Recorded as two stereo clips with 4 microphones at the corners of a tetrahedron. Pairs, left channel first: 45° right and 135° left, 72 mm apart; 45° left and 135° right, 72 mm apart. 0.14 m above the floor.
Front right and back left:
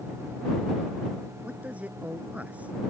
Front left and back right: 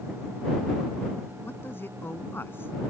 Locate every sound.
1.4 s a man speaking: 80° left